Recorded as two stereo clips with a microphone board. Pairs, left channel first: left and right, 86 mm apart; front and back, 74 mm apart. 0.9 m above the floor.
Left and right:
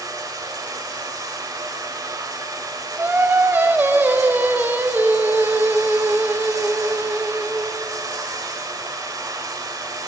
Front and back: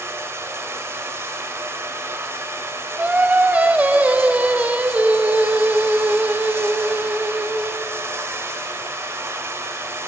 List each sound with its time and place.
0.0 s running water: 130° right, 1.2 m
3.0 s singing: 130° right, 0.6 m